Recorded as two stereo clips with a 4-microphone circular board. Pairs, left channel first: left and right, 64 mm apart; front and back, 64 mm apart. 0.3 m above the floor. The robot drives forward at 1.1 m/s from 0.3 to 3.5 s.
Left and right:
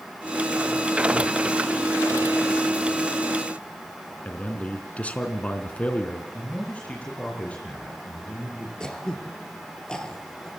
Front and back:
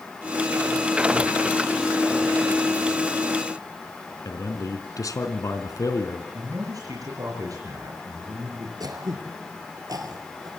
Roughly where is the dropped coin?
I don't hear a dropped coin.